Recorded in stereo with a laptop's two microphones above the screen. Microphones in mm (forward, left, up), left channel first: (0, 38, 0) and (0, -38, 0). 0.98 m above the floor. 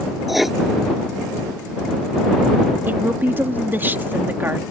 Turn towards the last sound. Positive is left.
turn(degrees=-25)  # may be behind; listen again after turning